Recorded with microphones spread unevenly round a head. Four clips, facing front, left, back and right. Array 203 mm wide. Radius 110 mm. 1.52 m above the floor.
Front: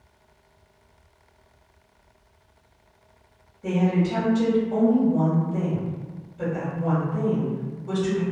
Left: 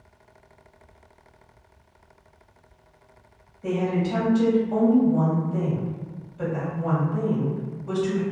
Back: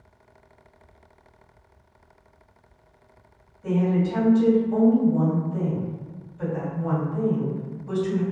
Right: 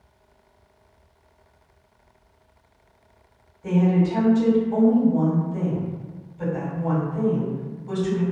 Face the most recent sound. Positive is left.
turn(degrees=55)